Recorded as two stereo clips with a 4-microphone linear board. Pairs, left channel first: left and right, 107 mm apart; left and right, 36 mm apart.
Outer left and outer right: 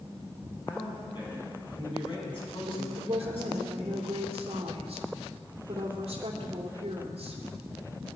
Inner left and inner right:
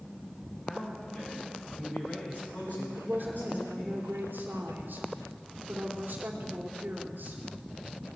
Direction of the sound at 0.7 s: 45° left (ahead or behind).